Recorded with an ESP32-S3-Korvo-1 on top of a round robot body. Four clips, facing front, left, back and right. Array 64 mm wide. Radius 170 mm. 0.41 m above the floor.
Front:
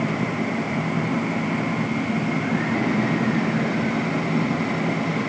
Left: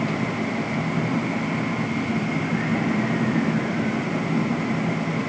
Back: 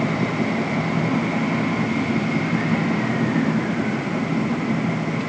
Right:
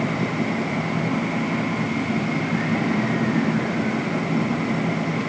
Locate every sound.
Only background noise.